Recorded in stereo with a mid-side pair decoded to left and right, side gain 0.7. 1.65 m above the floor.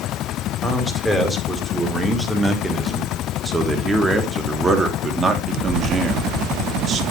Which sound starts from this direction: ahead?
A man speaking, at 0.6 s.